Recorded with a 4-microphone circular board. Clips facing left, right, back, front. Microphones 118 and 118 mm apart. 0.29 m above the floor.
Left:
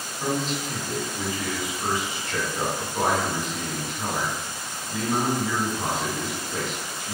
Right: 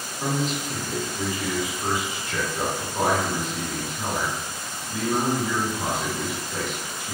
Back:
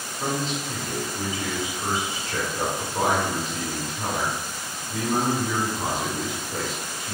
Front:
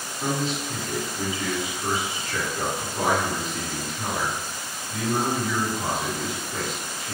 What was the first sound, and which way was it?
A man speaking, 160° right.